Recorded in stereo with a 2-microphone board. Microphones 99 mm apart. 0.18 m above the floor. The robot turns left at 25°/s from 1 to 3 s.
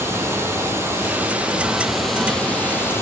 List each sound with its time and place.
0.0 s running water: 155° right, 0.9 m; by 3.0 s 155° left, 0.9 m